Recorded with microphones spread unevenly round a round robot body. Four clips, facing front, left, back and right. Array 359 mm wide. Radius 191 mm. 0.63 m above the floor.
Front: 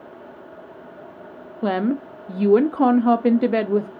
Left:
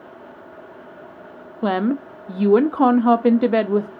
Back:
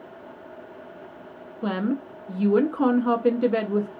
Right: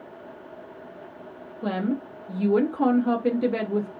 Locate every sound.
1.6 s a woman speaking: 45° left, 0.7 m